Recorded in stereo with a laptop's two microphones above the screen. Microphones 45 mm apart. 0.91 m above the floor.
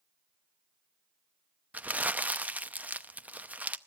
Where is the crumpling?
35° right (ahead or behind), 0.7 m.